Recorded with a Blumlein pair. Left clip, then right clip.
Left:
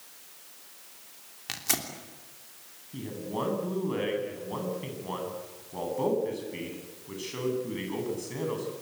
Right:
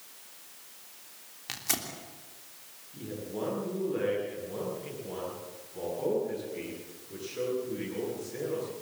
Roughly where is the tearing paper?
Ahead.